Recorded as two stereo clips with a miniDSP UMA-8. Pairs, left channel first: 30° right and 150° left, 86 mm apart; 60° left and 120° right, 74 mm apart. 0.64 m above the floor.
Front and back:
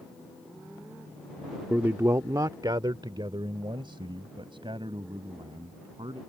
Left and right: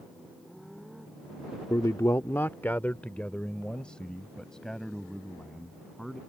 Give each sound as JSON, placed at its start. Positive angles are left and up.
{"t": 1.7, "sound": "a man speaking", "azimuth_deg": 85}